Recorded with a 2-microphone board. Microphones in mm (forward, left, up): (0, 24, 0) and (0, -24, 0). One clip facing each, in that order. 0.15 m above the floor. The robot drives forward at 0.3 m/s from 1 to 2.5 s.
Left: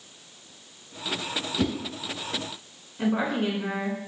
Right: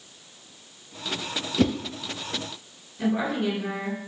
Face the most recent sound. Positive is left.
turn(degrees=35)  # may be behind; listen again after turning